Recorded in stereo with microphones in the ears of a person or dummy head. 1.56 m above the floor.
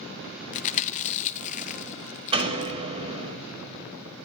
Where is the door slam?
35° right (ahead or behind), 1.9 m.